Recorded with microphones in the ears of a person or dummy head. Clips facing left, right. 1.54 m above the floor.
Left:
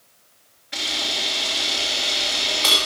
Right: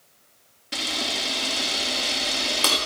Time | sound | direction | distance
0.7 | a camera shutter | 45° right (ahead or behind) | 1.5 m